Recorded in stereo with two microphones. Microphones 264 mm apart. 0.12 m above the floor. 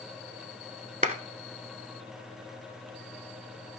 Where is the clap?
30° right (ahead or behind), 0.9 m.